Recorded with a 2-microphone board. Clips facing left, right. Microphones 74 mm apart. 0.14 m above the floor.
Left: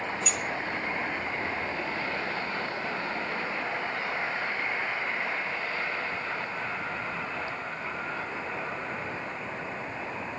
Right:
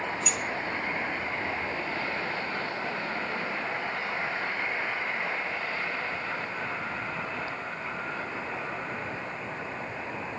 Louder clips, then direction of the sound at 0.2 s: Even; 5° right (ahead or behind).